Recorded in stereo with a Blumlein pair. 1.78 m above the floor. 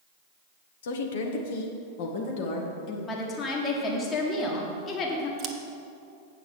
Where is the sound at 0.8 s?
60° left, 1.2 m; by 3.0 s 45° left, 2.5 m.